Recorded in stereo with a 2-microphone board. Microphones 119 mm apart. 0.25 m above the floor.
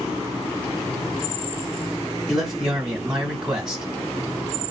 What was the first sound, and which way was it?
A man speaking, 5° right (ahead or behind).